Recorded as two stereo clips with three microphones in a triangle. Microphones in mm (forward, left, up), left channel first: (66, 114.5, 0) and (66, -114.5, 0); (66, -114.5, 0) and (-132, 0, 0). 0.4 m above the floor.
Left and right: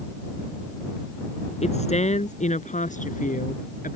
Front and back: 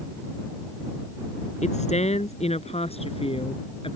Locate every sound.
1.6 s a woman speaking: 30° left; by 4.0 s 35° left